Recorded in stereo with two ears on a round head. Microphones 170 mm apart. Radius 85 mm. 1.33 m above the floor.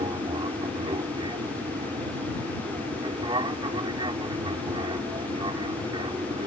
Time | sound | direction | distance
0.0 | an aircraft | 25° right (ahead or behind) | ?